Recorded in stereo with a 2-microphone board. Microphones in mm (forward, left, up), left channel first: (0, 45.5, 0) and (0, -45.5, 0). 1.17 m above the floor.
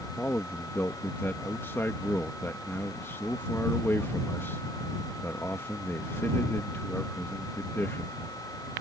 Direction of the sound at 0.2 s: 25° left (ahead or behind).